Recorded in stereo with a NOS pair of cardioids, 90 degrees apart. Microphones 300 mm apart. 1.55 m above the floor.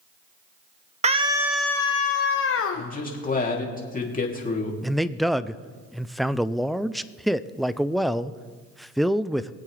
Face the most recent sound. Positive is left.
turn(degrees=0)